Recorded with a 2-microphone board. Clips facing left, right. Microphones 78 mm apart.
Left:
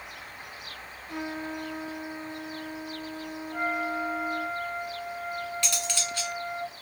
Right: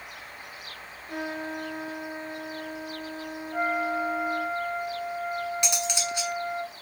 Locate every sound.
1.1 s a trumpet: 55° right (ahead or behind), 2.5 m
3.5 s a flute: 25° right (ahead or behind), 1.3 m
5.6 s cutlery clinking: 20° right (ahead or behind), 0.6 m